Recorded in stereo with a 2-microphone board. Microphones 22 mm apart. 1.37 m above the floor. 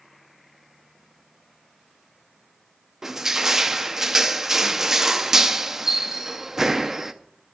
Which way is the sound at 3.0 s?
20° right (ahead or behind).